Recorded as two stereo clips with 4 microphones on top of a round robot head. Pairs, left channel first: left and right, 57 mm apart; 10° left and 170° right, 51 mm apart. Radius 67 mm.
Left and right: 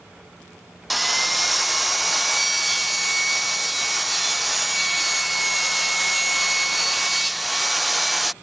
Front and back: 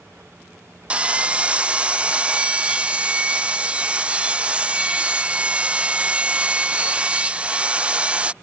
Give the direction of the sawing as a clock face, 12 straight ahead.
6 o'clock.